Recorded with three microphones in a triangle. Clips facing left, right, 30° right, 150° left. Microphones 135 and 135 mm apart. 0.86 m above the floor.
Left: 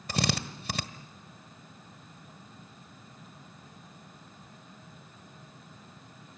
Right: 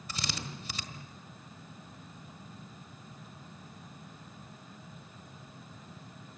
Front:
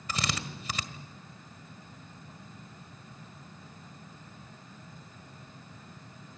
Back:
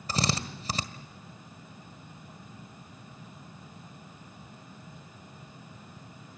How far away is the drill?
About 1.5 m.